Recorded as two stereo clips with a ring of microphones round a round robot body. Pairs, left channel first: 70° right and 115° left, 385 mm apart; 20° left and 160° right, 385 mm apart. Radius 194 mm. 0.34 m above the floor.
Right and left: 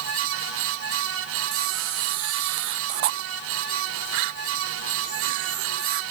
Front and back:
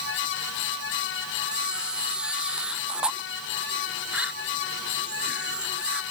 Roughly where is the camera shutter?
Behind left.